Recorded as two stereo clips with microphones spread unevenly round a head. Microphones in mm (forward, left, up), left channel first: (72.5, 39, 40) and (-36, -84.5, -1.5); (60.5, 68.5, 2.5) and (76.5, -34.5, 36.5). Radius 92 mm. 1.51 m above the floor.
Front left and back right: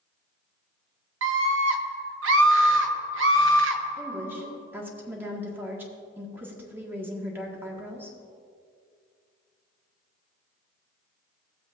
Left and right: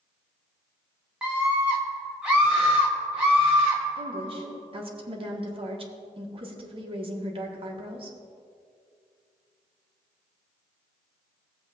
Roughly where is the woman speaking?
Ahead right.